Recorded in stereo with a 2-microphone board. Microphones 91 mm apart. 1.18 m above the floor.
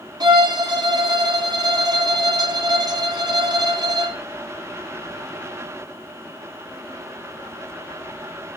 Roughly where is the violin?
Right.